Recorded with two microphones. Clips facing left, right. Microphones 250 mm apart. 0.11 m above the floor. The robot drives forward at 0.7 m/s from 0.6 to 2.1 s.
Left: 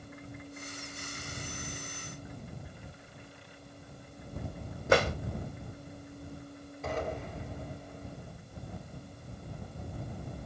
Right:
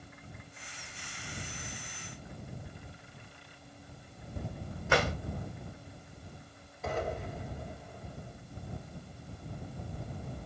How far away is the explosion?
About 2.5 m.